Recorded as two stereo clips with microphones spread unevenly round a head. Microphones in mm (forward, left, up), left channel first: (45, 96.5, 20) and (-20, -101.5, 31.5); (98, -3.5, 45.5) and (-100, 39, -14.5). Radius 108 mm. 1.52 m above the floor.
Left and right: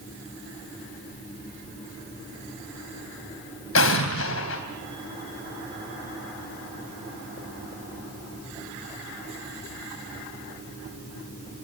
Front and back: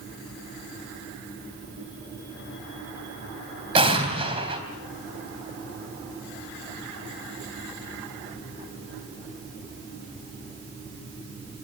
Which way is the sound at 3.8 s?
100° left.